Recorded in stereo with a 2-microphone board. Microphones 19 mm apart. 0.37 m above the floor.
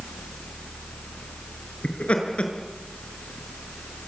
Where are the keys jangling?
No keys jangling in this recording.